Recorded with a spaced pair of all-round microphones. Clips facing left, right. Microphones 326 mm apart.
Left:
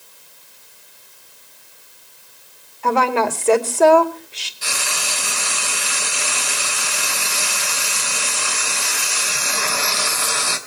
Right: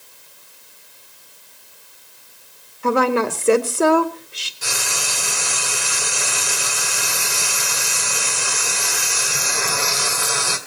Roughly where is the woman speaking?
Centre.